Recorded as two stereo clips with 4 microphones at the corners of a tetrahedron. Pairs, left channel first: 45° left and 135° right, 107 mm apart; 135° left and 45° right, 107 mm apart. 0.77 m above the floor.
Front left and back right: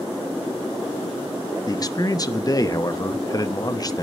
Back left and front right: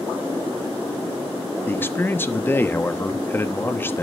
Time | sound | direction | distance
1.7 | a man speaking | 75° left | 1.0 m